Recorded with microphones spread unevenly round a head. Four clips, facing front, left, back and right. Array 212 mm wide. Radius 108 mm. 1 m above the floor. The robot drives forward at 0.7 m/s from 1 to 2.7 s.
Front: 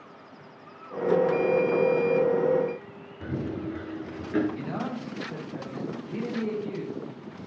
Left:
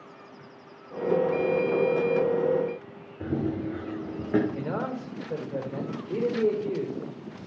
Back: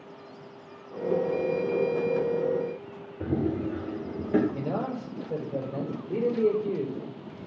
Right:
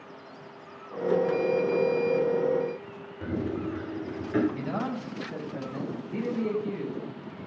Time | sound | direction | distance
3.2 | running footsteps | 150° left | 7.5 m
4.5 | a man speaking | 135° left | 4 m